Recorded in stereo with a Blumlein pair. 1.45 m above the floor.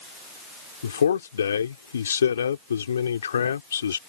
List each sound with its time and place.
0.8 s a man speaking: 70° left